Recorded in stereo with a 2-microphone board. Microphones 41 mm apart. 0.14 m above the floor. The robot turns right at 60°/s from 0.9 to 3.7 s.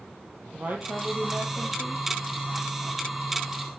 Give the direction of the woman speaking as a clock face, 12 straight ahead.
2 o'clock.